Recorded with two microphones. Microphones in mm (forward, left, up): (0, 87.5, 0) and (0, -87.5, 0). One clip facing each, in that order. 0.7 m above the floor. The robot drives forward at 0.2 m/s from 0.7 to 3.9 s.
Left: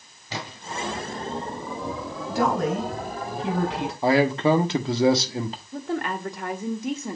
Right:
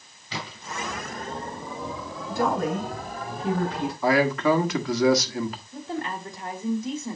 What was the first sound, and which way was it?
A splash, 45° left (ahead or behind).